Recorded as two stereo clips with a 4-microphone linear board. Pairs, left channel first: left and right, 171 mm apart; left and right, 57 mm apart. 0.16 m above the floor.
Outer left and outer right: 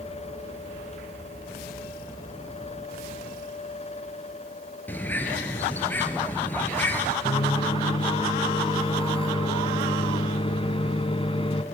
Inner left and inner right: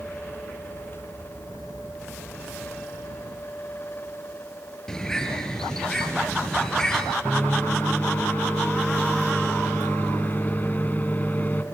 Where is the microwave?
35° left (ahead or behind), 1.0 m.